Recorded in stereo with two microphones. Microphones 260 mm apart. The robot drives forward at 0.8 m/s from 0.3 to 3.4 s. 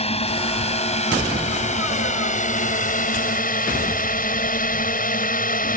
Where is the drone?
25° left (ahead or behind); by 5.8 s 35° left (ahead or behind).